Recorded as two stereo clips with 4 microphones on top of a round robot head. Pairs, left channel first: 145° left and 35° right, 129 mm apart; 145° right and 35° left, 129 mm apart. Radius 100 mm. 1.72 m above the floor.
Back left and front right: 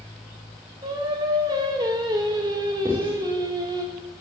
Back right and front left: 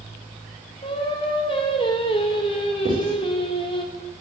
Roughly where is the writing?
Ahead left.